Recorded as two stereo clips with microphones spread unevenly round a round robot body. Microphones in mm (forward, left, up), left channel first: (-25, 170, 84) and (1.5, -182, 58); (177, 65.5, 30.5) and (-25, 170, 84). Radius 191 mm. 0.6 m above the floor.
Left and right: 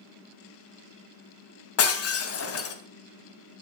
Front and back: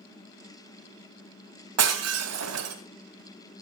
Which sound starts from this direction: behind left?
Breaking glass, at 1.8 s.